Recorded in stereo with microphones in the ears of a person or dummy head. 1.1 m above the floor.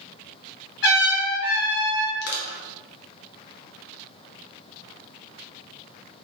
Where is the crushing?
50° left (ahead or behind), 0.7 m.